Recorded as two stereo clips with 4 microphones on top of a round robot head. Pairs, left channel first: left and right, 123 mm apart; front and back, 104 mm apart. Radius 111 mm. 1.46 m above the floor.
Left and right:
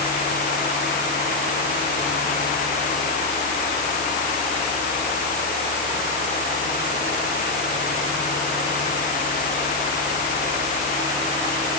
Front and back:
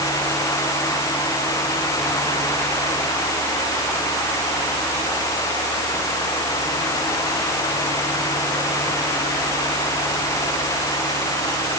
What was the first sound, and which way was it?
Only background noise.